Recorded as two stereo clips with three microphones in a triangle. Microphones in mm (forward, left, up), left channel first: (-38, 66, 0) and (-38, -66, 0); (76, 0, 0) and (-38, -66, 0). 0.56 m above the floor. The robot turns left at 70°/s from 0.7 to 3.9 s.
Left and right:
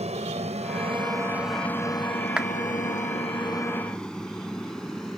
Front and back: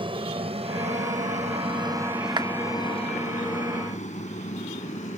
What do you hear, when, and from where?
0.0 s an aircraft: 110° right; by 5.2 s 5° left
2.4 s a clap: 165° right; by 2.5 s 175° right